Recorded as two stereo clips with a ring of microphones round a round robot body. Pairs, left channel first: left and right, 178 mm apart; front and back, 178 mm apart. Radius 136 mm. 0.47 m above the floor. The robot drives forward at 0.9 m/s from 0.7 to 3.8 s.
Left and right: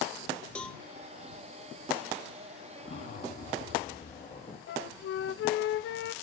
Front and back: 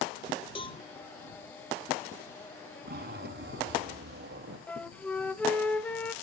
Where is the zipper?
150° left, 2.5 m; by 4.6 s 155° left, 3.5 m.